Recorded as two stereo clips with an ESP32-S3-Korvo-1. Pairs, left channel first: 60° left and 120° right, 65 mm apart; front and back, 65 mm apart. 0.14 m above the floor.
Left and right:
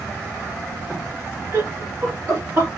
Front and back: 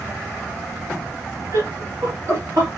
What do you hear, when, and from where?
1.5 s laughter: 155° right, 2.5 m; by 2.7 s 165° right, 3 m